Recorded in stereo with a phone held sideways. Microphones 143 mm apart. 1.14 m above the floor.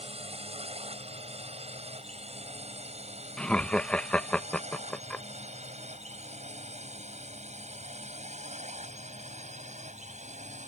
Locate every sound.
0.0 s a drone: 50° right (ahead or behind); by 10.7 s 60° right (ahead or behind)
3.4 s laughter: 10° left (ahead or behind)